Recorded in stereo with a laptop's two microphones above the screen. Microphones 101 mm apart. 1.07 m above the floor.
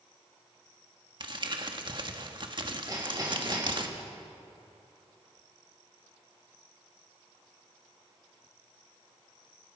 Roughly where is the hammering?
Right.